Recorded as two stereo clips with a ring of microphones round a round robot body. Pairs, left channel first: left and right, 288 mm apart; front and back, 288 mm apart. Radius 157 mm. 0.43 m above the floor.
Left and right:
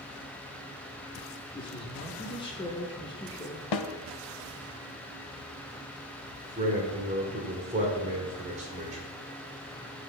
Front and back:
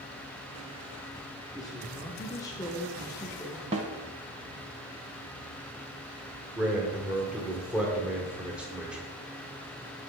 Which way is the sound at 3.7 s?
110° left.